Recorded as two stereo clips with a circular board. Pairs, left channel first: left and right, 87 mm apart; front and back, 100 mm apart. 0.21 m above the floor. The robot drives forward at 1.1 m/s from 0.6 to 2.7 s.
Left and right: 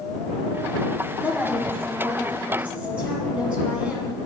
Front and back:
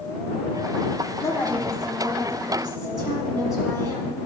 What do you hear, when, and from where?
1.2 s a woman speaking: 30° right, 1.2 m; by 4.2 s 160° right, 1.4 m